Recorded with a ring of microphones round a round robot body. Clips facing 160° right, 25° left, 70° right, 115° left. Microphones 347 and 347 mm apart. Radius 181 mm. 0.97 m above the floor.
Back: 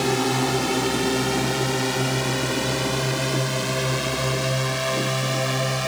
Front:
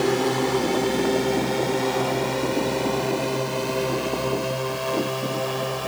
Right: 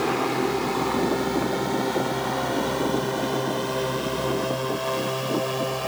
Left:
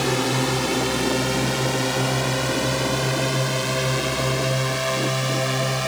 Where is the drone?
140° left; by 5.9 s 160° left.